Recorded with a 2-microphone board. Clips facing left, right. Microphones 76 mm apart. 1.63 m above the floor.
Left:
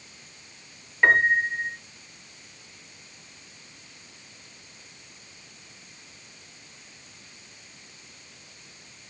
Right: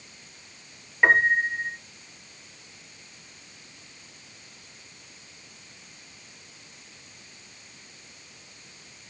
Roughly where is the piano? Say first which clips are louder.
Even; centre.